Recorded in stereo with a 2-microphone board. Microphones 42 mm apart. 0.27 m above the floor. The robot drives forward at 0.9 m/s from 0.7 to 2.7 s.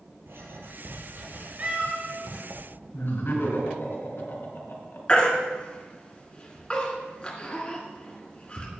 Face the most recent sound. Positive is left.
turn(degrees=25)  # may be behind; listen again after turning